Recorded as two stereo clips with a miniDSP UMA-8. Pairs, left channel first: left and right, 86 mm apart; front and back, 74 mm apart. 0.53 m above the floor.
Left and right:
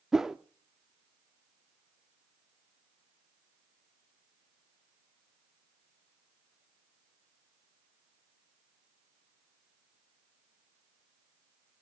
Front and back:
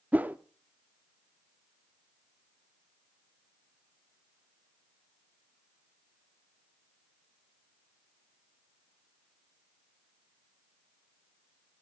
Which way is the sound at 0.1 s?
165° right.